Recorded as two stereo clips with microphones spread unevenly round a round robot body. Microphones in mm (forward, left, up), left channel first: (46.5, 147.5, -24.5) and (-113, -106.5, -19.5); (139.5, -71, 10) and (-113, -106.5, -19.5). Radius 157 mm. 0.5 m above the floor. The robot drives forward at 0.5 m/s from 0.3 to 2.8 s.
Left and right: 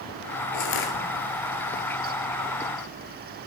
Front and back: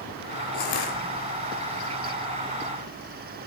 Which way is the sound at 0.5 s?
40° left.